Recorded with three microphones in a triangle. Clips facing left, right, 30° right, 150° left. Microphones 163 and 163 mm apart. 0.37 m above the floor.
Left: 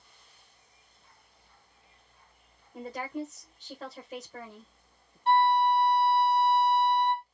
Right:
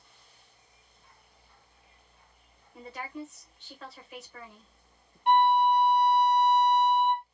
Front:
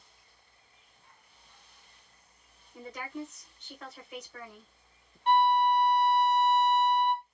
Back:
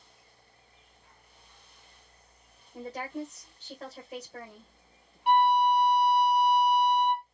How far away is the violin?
About 1.1 m.